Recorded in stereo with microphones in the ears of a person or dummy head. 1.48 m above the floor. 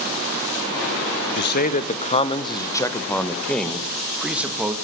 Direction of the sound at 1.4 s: 50° left (ahead or behind).